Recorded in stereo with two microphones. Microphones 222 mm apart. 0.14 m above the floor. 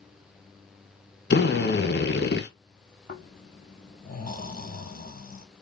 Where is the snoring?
40° left (ahead or behind), 1.0 m.